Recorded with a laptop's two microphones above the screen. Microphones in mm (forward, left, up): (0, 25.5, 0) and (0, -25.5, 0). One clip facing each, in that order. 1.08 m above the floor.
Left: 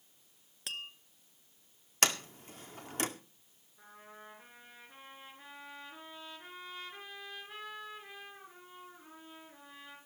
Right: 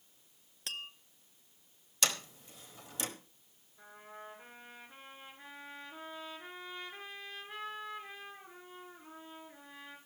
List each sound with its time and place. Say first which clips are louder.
0.7 s tapping: left 1 dB; 5° left (ahead or behind), 0.7 m
2.0 s a sliding door: left 4 dB; 55° left (ahead or behind), 1.9 m
3.8 s a trumpet: right 2 dB; centre (ahead or behind), 4.5 m